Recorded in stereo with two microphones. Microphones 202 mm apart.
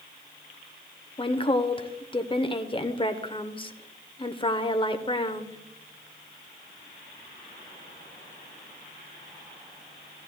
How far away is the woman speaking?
About 0.9 m.